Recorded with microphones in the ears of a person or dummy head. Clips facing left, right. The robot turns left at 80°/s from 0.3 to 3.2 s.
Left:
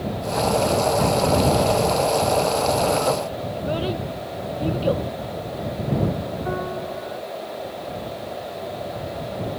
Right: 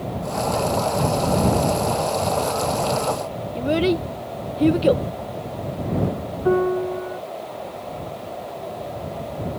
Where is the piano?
45° right (ahead or behind).